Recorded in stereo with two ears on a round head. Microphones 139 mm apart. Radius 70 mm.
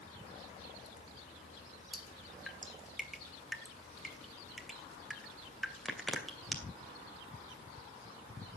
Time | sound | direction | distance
1.9 | dripping | centre (ahead or behind) | 2.5 m